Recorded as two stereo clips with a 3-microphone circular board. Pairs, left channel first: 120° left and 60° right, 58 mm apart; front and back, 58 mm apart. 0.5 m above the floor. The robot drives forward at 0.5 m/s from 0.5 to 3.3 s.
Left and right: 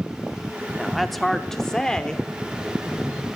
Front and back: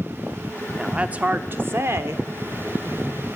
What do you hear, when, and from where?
0.8 s a woman speaking: 135° right, 0.7 m; by 2.2 s 170° right, 1.1 m